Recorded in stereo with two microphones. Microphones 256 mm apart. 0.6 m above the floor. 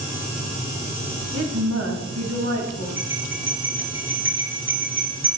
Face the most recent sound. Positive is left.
turn(degrees=-50)  # may be behind; listen again after turning